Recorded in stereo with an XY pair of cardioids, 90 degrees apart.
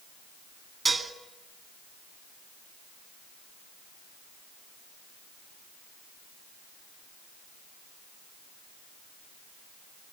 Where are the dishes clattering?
30° right, 2 m.